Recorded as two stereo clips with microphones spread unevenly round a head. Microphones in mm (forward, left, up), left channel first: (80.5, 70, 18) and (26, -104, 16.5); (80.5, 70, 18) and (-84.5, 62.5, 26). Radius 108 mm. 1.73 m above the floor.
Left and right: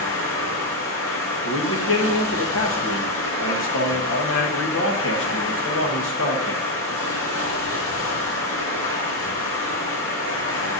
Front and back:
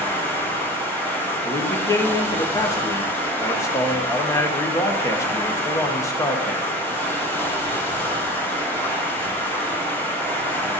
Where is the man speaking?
75° left, 1.4 m.